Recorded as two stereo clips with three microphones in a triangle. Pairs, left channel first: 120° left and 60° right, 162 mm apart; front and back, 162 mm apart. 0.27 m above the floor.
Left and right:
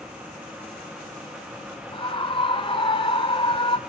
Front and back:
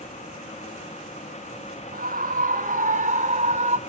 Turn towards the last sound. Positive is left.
turn(degrees=165)